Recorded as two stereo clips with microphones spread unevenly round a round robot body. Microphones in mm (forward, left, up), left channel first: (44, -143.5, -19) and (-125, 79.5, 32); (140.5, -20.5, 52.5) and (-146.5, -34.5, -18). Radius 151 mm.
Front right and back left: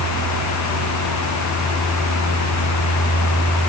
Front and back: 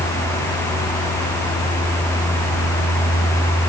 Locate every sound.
Only background noise.